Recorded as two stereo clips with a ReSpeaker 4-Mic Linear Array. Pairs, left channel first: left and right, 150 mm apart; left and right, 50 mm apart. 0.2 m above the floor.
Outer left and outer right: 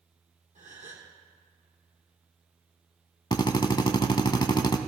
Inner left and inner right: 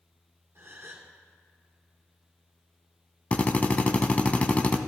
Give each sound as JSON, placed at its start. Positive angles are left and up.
{"t": 0.6, "sound": "a gasp", "side_deg": -55, "distance_m": 1.9}
{"t": 3.3, "sound": "a drill", "side_deg": 30, "distance_m": 0.6}